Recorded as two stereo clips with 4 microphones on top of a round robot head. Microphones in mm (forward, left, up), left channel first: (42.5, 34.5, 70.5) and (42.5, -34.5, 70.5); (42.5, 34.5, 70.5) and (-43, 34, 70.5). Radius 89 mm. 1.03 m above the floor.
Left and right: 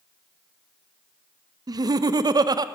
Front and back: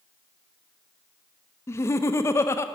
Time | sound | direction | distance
1.7 | laughter | 60° right | 0.6 m